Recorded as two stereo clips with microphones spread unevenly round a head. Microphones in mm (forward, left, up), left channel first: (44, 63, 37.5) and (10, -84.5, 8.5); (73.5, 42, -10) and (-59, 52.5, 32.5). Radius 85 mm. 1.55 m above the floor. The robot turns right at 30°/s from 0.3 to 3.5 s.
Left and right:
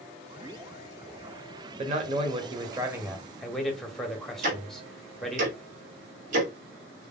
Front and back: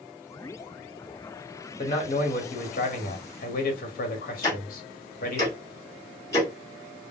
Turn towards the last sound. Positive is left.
turn(degrees=-90)